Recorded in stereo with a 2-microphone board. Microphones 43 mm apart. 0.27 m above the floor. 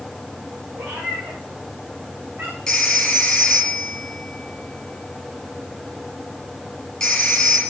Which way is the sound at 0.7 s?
60° right (ahead or behind).